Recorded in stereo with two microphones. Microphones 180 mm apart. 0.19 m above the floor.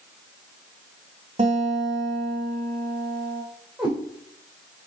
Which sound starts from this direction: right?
A guitar, at 1.4 s.